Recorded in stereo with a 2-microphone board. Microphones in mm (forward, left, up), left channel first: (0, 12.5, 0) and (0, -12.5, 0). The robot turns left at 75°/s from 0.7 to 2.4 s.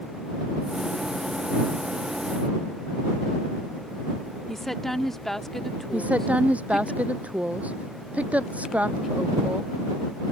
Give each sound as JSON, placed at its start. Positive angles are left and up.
{"t": 4.5, "sound": "a woman speaking", "side_deg": 15}
{"t": 5.9, "sound": "a woman speaking", "side_deg": -75}